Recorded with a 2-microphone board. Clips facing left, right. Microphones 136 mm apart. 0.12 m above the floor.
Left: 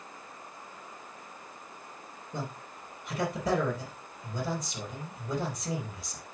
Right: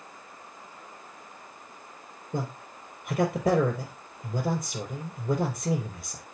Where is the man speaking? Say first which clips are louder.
Right 5 dB; 50° right (ahead or behind), 3 m.